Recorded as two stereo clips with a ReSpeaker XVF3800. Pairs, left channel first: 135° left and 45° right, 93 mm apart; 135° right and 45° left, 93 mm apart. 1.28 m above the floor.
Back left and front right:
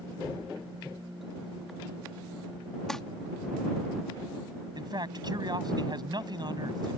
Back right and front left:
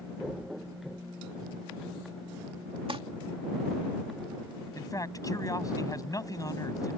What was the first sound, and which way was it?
Crumpling, 50° left.